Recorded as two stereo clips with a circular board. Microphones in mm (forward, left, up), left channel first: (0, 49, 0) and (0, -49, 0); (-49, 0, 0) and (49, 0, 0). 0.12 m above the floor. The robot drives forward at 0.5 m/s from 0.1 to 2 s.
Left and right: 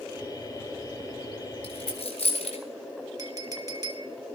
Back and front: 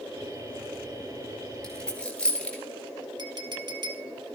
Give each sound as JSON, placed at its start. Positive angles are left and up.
{"t": 1.6, "sound": "a dropped coin", "azimuth_deg": 95, "distance_m": 2.5}
{"t": 3.2, "sound": "a clink", "azimuth_deg": -40, "distance_m": 2.0}